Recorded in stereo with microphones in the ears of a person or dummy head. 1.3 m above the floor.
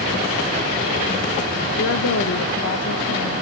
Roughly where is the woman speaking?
Left.